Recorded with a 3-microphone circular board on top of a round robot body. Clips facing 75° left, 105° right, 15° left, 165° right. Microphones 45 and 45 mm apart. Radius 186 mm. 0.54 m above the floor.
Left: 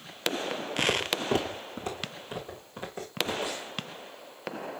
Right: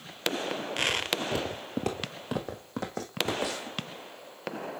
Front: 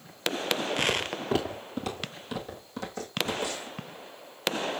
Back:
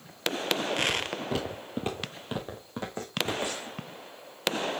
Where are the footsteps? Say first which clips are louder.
Left 2 dB, front 1 dB; 80° left, 0.9 m; by 3.8 s 100° right, 3 m.